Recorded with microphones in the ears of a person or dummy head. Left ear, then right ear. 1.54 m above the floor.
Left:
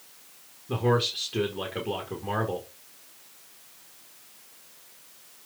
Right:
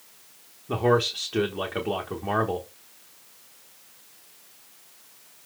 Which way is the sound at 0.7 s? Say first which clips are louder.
Right 3 dB; 40° right (ahead or behind).